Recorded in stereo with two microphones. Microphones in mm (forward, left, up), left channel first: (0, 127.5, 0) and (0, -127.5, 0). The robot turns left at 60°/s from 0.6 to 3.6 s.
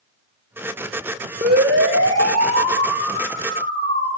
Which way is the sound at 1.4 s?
35° right (ahead or behind).